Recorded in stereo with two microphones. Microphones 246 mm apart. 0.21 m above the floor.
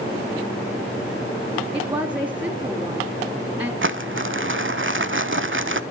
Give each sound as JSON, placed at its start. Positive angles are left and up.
{"t": 1.7, "sound": "a woman speaking", "side_deg": -20, "distance_m": 1.9}
{"t": 3.8, "sound": "crumpling", "side_deg": -60, "distance_m": 0.6}